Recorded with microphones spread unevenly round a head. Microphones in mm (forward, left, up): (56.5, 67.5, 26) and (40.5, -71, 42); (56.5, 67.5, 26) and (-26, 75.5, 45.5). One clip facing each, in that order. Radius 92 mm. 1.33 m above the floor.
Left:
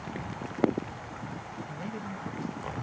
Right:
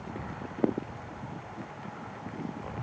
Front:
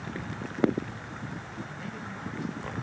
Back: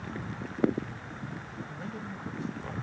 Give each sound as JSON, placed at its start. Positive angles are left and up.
{"t": 1.7, "sound": "a man speaking", "azimuth_deg": 120}